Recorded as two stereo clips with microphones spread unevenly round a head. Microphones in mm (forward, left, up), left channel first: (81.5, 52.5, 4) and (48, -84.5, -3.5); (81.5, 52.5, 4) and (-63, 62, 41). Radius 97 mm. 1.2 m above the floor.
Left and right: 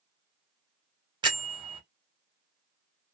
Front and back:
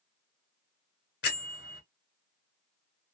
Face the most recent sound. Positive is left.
turn(degrees=-45)